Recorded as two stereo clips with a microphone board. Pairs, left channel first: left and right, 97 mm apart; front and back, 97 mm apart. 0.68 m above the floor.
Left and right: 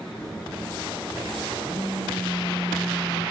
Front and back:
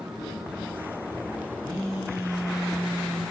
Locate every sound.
1.6 s a phone buzzing: 125° left, 1.2 m